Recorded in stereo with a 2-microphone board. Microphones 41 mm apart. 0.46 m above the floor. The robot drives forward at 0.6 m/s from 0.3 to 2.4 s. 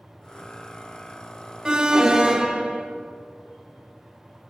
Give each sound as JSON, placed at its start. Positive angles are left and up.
{"t": 1.6, "sound": "an alarm", "side_deg": -20, "distance_m": 0.6}